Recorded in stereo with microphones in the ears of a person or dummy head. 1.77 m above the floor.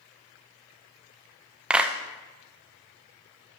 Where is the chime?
No chime in this recording.